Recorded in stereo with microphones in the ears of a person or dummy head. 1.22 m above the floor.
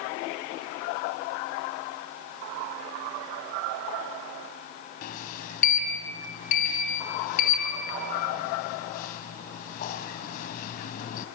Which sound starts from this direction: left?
A sliding door, at 5.0 s.